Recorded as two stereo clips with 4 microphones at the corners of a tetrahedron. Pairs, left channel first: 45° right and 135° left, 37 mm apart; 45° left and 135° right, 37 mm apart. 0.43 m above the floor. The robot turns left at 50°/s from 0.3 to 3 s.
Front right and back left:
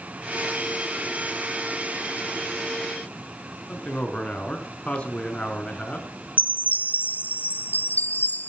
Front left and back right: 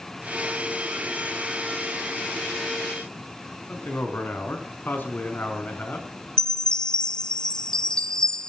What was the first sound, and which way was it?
A man speaking, 10° left.